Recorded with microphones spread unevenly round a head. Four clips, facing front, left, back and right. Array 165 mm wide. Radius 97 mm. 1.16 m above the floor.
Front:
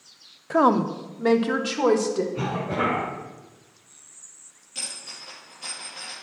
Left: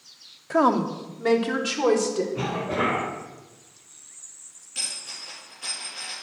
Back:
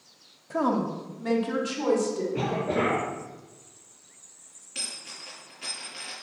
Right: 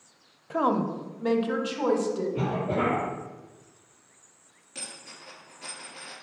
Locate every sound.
0.5 s a woman speaking: 40° left, 0.8 m; by 2.2 s 25° left, 1.9 m
2.3 s a cough: 155° right, 4.5 m
4.8 s a dropped coin: 115° right, 5 m